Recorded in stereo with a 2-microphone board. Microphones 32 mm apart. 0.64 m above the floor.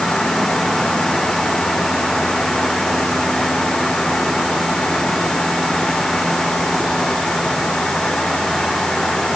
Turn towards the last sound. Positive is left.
No sound to turn to.